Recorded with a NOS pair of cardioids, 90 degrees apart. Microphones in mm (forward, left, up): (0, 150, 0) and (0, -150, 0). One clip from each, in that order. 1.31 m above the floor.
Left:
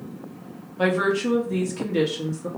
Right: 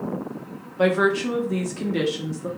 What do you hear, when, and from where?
0.8 s a woman speaking: 10° right, 1.1 m